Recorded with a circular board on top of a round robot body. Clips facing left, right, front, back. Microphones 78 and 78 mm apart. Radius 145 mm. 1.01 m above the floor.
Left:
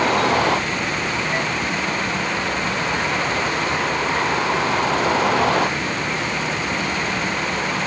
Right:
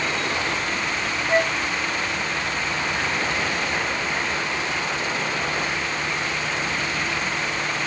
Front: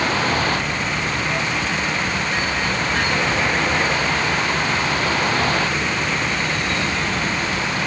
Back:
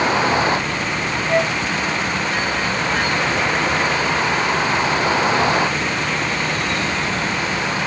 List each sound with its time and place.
0.0 s a vehicle: 110° left
1.3 s a flute: 150° right